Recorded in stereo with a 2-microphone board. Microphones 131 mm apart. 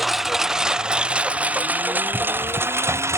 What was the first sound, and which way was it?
A lawn mower, centre (ahead or behind).